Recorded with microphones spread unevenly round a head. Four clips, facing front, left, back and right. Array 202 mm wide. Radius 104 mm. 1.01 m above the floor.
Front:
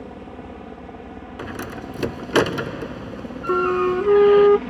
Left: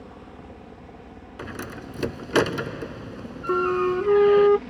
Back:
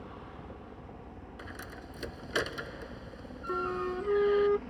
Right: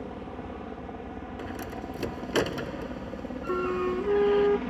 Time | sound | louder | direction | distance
0.0 | a helicopter | right 5 dB, front 10 dB | 25° right | ?
1.4 | a door slam | left 3 dB, front 15 dB | 20° left | ?
3.5 | a flute | left 6 dB, front 14 dB | 20° left | ?